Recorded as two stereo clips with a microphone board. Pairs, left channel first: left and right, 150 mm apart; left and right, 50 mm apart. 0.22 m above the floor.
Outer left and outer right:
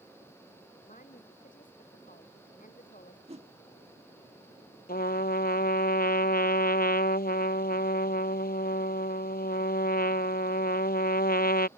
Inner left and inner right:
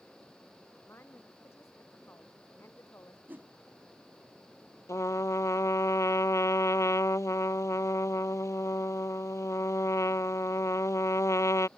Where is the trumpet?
75° left (ahead or behind).